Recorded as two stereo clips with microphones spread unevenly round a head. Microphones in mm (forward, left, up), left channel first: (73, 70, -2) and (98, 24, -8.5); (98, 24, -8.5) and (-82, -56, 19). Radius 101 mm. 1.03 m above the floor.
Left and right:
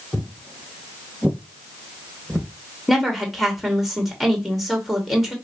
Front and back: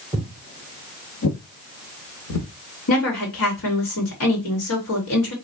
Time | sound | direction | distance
0.1 | footsteps | 155° left | 1.0 m
2.9 | a woman speaking | 30° left | 2.5 m